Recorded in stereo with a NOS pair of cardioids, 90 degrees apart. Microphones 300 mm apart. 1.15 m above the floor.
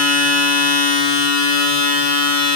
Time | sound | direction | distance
0.0 | a machine running | 65° left | 3.5 m